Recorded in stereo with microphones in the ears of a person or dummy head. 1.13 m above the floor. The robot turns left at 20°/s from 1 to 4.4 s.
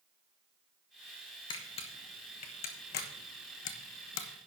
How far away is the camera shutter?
About 1.3 m.